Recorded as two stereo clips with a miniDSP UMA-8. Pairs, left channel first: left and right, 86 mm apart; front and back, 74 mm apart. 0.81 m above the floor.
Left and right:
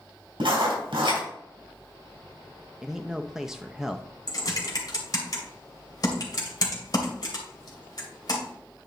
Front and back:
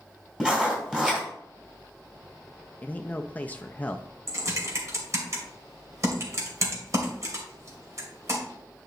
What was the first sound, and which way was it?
Writing, 100° right.